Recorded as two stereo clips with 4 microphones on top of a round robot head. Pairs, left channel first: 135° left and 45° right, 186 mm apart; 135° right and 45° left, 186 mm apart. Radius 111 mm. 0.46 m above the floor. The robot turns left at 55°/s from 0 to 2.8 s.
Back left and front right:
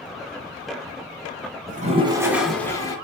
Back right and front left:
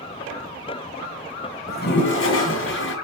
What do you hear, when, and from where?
1.7 s a toilet flushing: 90° right, 2.5 m; by 3.0 s 150° right, 2.5 m